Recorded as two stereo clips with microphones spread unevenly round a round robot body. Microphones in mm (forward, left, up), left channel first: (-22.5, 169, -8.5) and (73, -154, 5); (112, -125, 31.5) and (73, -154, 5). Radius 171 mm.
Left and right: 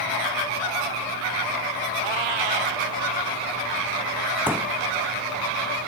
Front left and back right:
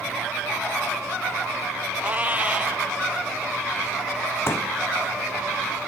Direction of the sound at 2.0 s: 80° right.